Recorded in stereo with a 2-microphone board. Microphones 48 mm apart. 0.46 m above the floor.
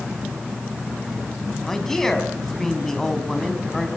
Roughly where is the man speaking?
Centre.